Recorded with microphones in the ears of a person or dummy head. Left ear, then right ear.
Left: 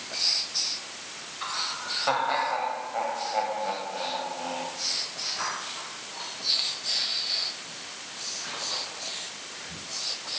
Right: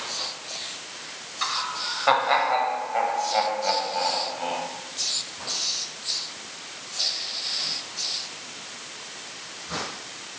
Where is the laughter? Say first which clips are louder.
Right 4 dB; 30° right (ahead or behind), 8 m; by 4.7 s 20° right (ahead or behind), 10.5 m.